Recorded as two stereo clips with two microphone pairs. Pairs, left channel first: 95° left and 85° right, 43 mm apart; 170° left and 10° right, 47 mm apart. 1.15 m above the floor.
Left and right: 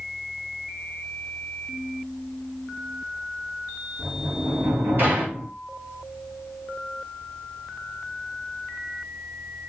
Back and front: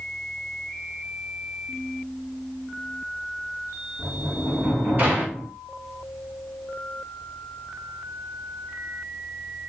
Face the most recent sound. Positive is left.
turn(degrees=-55)